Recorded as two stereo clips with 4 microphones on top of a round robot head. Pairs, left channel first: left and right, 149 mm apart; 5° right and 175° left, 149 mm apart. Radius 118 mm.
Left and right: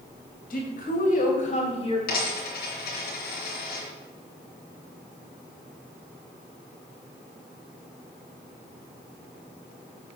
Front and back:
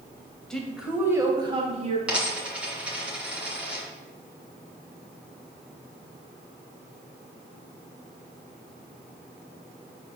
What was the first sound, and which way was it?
A woman speaking, 80° left.